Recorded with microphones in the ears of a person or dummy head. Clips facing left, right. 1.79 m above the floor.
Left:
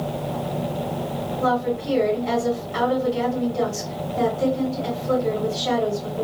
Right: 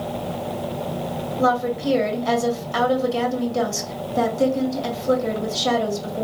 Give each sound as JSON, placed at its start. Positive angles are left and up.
{"t": 1.4, "sound": "a woman speaking", "side_deg": -75, "distance_m": 1.7}